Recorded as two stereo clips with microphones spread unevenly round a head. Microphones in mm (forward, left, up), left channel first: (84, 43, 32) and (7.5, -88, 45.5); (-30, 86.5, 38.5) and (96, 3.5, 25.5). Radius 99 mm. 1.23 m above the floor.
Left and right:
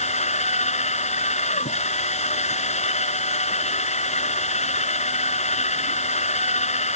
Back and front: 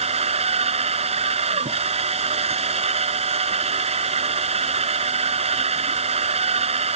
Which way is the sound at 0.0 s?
15° left.